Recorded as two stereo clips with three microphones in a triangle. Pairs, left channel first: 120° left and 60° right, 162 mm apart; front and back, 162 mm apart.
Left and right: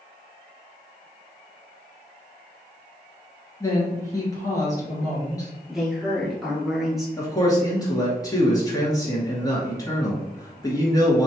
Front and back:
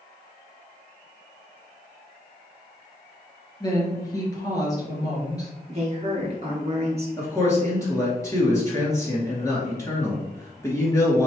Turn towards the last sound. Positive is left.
turn(degrees=65)